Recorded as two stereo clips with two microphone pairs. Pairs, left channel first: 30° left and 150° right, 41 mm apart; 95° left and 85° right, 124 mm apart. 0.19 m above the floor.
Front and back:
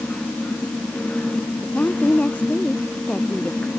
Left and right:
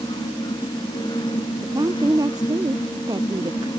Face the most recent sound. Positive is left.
turn(degrees=-30)